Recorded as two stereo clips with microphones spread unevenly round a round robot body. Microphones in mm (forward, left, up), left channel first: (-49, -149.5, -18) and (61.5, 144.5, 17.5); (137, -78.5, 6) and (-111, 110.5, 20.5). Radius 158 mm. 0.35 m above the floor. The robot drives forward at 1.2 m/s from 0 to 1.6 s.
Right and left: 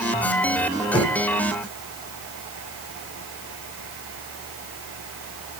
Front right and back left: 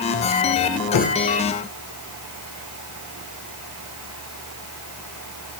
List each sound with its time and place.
0.9 s knocking: 40° right, 2 m; by 1.2 s 50° right, 1.8 m